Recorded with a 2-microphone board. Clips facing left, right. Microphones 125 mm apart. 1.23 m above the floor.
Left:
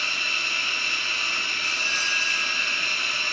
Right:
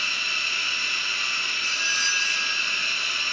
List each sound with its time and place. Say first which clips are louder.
0.0 s running water: left 1 dB; 50° left (ahead or behind), 2.5 m
1.6 s a doorbell: right 2 dB; 55° left (ahead or behind), 4 m